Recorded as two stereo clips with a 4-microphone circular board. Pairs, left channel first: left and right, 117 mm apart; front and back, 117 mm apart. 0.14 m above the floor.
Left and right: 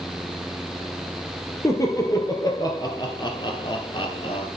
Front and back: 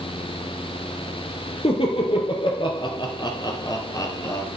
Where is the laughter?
30° left, 3 m; by 4.5 s 60° left, 2.5 m.